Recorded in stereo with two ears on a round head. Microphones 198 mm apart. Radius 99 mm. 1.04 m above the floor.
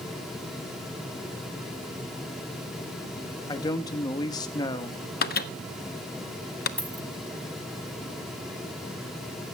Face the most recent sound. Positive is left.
turn(degrees=5)  # may be behind; listen again after turning